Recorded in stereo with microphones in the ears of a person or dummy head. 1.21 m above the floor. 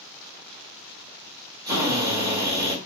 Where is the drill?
20° right (ahead or behind), 1.2 m.